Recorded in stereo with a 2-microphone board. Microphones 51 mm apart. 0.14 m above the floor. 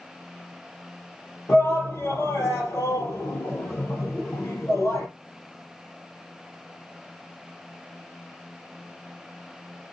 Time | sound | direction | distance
1.5 | a shout | 65° left (ahead or behind) | 3.5 m